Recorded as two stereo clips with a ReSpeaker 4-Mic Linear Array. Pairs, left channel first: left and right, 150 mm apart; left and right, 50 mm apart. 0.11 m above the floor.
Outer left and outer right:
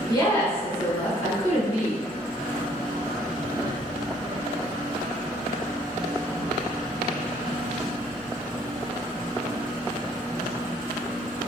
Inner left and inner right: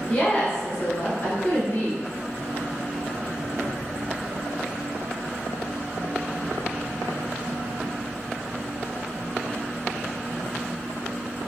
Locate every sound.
0.1 s a woman speaking: 20° left (ahead or behind), 1.2 m; by 2.0 s 25° left (ahead or behind), 1.5 m